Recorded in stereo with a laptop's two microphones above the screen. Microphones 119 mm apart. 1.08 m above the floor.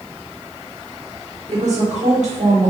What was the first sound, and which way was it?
A woman speaking, 75° right (ahead or behind).